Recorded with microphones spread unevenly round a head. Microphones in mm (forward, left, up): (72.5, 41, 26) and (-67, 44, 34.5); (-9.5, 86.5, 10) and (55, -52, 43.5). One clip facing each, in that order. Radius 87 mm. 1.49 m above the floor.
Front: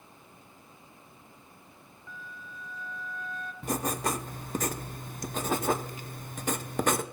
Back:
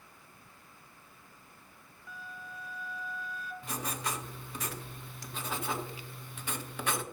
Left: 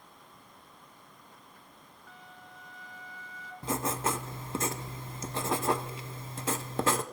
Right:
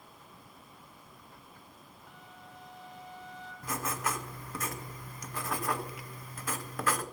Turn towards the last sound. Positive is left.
turn(degrees=45)